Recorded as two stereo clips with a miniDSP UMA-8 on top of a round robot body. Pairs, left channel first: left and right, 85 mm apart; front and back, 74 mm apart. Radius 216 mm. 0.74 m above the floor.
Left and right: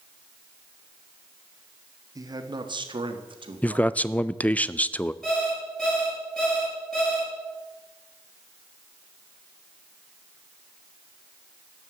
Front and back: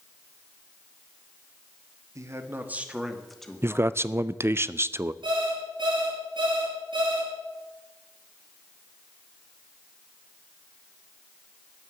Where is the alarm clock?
170° left, 7 m.